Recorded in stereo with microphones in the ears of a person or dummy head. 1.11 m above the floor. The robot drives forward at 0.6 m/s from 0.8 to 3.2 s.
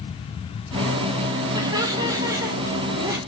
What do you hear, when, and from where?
1.5 s laughter: 25° right (ahead or behind), 1.9 m; by 3.2 s 15° right (ahead or behind), 3 m